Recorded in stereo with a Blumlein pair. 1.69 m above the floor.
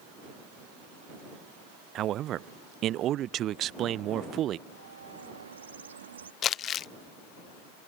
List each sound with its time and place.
1.9 s a man speaking: 30° right
4.7 s a bird: 70° right
6.4 s crumpling: 30° left